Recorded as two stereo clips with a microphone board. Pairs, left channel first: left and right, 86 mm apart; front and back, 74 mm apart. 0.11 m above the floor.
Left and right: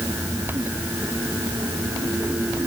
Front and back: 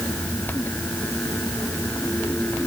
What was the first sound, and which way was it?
Only background noise.